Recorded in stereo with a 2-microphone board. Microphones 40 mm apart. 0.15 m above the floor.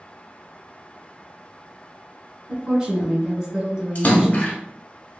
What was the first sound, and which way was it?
A woman speaking, 20° right (ahead or behind).